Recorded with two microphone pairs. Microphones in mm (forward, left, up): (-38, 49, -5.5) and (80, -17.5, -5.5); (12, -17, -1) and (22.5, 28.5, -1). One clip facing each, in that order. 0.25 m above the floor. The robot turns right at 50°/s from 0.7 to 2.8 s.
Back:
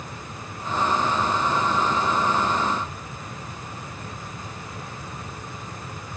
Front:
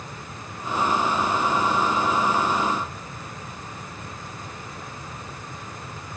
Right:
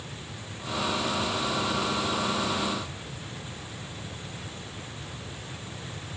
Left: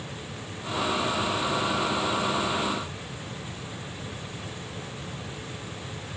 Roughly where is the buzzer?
No buzzer in this recording.